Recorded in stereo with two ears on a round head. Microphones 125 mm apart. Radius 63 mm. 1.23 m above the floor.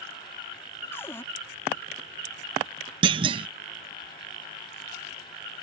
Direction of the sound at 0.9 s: 20° left (ahead or behind).